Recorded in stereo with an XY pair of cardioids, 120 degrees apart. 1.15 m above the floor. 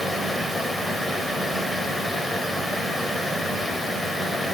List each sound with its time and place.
0.0 s a fan: 5° left, 2 m